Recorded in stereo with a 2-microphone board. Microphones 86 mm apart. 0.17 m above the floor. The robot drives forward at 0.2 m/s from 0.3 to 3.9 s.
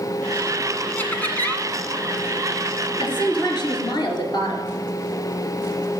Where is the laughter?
20° left (ahead or behind), 1.4 m.